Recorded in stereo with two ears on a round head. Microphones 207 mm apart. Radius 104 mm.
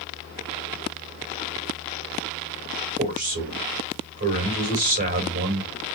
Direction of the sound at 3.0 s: 40° right (ahead or behind).